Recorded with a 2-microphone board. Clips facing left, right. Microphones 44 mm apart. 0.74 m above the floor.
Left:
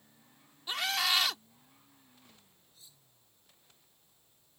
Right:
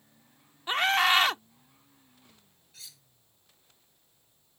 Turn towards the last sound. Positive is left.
turn(degrees=-65)  # may be behind; listen again after turning